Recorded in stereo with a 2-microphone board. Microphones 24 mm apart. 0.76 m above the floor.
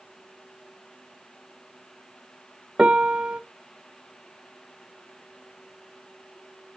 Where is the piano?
45° right (ahead or behind), 0.7 m.